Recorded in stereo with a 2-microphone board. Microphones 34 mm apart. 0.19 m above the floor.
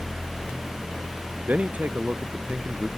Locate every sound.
1.5 s a man speaking: 55° right (ahead or behind)